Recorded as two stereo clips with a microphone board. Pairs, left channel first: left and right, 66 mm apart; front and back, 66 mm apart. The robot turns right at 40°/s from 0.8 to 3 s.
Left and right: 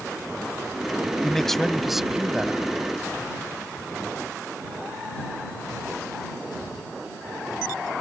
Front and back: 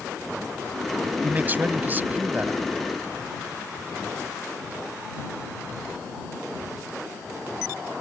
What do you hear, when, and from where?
1.2 s a man speaking: 160° left; by 2.6 s 145° right